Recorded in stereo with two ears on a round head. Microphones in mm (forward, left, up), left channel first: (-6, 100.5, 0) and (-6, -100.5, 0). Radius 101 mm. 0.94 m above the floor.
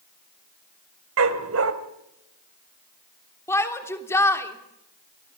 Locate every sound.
1.2 s a dog barking: 65° right (ahead or behind), 2.0 m
3.5 s a shout: 10° left (ahead or behind), 3 m